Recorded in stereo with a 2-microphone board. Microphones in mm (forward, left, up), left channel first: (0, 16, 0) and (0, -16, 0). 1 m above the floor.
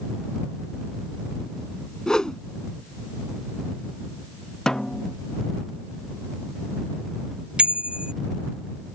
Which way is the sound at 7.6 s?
30° right (ahead or behind).